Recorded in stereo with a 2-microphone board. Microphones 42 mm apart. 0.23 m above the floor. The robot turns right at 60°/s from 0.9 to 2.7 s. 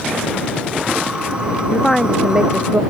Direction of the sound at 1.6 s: 150° left.